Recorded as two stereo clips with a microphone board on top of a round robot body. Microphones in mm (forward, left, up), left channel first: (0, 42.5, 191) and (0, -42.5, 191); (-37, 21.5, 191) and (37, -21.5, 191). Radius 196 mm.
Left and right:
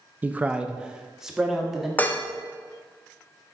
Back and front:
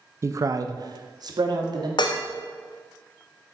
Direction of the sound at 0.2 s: 35° right.